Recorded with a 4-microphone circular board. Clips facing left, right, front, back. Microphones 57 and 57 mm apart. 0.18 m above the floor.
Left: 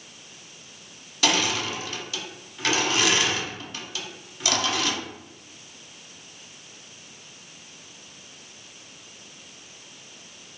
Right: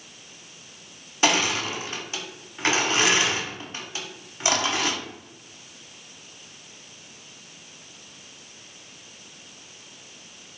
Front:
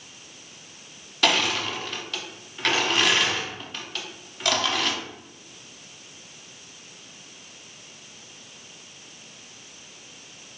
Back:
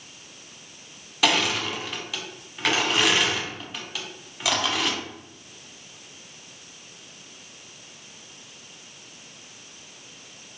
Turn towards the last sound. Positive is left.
turn(degrees=-95)